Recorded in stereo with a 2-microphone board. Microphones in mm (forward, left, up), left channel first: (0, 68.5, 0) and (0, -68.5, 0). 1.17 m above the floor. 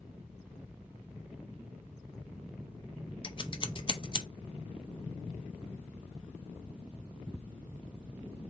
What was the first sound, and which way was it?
Scissors, 35° left (ahead or behind).